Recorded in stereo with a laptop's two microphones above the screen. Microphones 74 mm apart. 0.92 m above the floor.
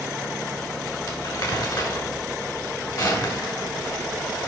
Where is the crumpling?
60° left (ahead or behind), 2 m.